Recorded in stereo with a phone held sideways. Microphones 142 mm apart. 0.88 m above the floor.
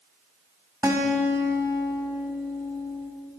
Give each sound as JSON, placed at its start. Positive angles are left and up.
{"t": 0.8, "sound": "a guitar", "side_deg": -20, "distance_m": 1.0}